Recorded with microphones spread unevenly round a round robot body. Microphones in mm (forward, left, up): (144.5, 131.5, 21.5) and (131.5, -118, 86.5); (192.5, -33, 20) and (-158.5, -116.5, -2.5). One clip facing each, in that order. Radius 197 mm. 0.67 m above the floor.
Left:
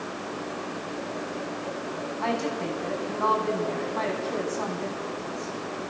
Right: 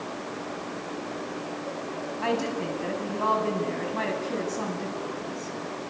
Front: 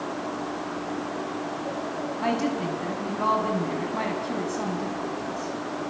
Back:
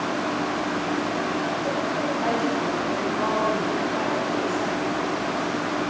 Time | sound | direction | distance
2.2 | a woman speaking | 35° right | 7 m